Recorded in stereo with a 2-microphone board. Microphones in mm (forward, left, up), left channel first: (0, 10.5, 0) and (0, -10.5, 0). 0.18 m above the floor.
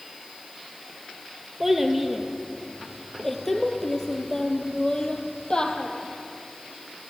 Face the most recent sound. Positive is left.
turn(degrees=35)  # may be behind; listen again after turning